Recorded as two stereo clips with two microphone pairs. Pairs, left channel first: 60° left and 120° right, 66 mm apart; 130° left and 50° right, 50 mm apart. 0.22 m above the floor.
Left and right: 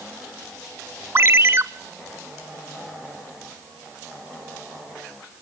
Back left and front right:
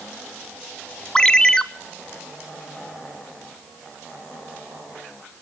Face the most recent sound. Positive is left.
turn(degrees=-155)